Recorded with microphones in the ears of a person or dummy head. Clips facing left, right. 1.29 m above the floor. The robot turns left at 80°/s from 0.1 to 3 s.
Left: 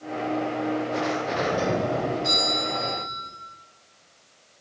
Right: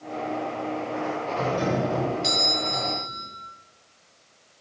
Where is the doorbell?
25° left, 7.5 m; by 3.3 s 110° right, 7.5 m.